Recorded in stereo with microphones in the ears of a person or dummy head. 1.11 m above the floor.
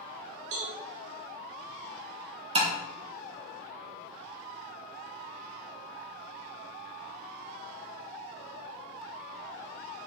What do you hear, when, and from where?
0.5 s a cowbell: 60° right (ahead or behind), 1.1 m
2.5 s tapping: 25° right (ahead or behind), 0.9 m